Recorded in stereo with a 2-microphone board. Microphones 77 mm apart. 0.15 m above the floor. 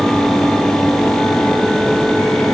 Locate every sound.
Only background noise.